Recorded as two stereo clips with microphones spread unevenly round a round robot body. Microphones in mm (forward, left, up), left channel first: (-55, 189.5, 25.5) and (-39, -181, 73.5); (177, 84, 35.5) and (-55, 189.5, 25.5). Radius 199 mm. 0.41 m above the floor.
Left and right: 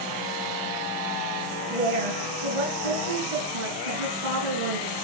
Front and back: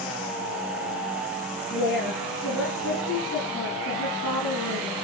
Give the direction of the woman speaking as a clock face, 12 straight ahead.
3 o'clock.